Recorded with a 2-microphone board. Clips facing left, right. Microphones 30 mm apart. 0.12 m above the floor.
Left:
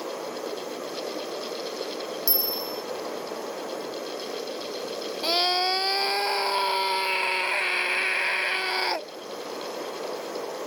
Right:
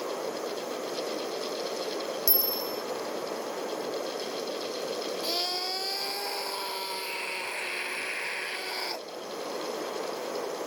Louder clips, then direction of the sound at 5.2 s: Left 11 dB; 45° left (ahead or behind).